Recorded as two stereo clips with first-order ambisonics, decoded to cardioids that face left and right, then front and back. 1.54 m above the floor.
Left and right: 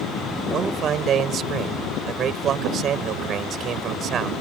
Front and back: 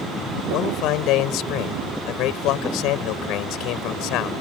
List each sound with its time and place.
0.5 s a man speaking: 35° right